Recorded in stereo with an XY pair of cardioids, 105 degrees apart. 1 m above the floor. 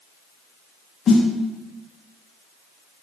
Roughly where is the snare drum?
Ahead left.